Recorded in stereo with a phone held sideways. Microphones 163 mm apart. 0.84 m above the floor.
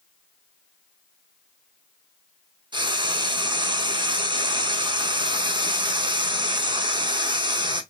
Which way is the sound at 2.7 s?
30° right (ahead or behind).